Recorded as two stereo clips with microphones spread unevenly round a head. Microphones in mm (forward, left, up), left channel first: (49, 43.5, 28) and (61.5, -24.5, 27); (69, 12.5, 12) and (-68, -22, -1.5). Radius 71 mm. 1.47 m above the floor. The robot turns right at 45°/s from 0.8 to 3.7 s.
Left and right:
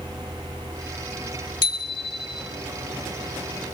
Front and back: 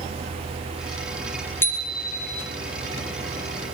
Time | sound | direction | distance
1.6 | a bicycle bell | 90° left | 2 m